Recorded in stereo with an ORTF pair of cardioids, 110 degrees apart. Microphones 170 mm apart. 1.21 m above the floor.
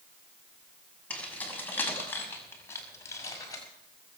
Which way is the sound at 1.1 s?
10° left.